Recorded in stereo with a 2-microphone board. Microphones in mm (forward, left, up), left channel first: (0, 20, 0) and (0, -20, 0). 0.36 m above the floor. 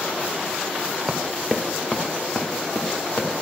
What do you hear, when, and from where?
1.1 s running footsteps: 10° right (ahead or behind), 1.0 m; by 3.4 s 55° left (ahead or behind), 3 m